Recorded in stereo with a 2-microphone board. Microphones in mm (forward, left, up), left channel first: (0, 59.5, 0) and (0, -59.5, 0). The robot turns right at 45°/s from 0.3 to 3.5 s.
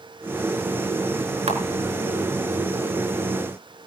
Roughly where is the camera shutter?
Right.